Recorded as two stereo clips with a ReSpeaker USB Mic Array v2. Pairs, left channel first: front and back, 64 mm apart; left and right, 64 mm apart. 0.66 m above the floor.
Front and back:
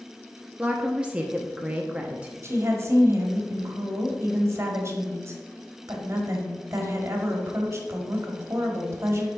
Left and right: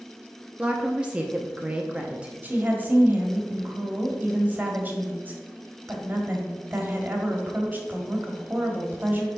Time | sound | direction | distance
0.6 | a woman speaking | 135° right | 0.7 m
2.4 | a woman speaking | 145° right | 1.5 m